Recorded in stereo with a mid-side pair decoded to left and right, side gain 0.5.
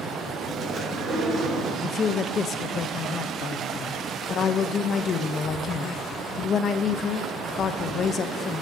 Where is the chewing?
45° right, 3 m.